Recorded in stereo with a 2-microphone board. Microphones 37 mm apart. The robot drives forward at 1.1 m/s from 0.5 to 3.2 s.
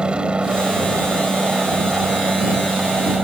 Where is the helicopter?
25° right (ahead or behind); by 3.2 s 30° right (ahead or behind).